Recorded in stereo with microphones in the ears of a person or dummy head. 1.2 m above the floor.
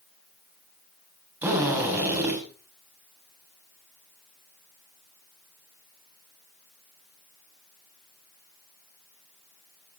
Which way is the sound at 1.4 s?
10° right (ahead or behind).